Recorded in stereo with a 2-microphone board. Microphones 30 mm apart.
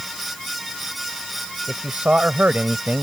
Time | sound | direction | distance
1.7 | a man speaking | 35° right (ahead or behind) | ?